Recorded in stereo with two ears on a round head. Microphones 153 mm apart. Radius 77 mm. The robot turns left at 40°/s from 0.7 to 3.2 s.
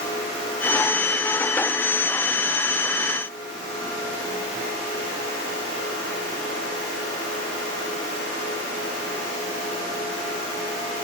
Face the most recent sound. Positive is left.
No sound to turn to.